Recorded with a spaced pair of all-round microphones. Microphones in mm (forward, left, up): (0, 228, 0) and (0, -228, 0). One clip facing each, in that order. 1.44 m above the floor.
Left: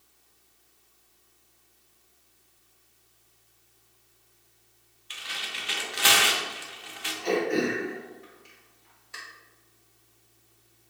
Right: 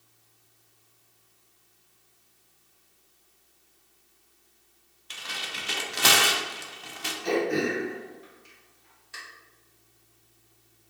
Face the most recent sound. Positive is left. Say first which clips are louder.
# even
turn(degrees=-35)  # may be behind; listen again after turning